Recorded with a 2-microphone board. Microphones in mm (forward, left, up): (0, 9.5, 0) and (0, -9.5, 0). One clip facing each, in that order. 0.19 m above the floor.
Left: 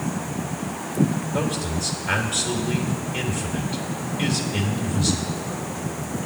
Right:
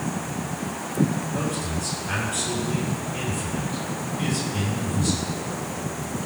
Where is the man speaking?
40° left (ahead or behind), 3.5 m.